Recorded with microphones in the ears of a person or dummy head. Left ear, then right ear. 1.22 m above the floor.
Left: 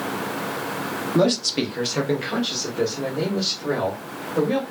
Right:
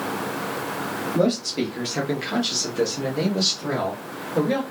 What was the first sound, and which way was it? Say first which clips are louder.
A man speaking: left 3 dB; 40° left (ahead or behind).